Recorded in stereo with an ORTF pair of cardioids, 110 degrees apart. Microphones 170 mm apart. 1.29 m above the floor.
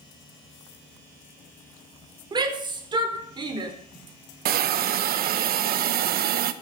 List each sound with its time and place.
2.3 s a shout: 25° right, 4 m
4.5 s a hiss: 60° right, 1.1 m